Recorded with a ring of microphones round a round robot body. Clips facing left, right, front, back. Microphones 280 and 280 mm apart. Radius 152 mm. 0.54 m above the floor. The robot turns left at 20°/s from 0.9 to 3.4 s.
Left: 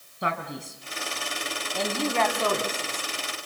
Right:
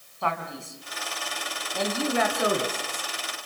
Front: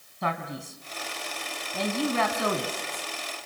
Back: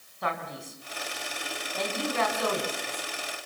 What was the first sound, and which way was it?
A man speaking, 20° left.